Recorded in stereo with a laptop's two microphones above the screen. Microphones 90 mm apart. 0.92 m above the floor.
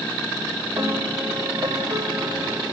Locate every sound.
0.8 s a piano: 40° right (ahead or behind), 3 m